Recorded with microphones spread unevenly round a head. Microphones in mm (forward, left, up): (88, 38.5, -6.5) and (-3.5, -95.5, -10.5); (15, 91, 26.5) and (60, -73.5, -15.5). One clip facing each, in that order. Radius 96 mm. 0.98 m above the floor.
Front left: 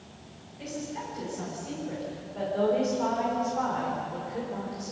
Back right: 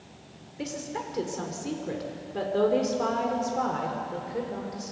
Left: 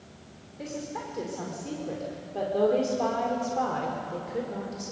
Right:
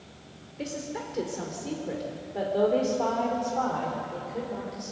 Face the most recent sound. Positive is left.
turn(degrees=165)